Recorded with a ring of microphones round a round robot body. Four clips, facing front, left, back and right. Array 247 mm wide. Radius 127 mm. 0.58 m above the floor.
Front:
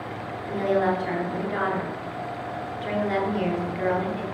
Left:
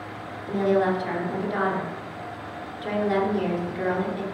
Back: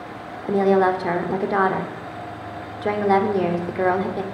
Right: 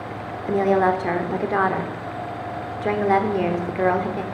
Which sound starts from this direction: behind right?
A woman speaking, at 0.5 s.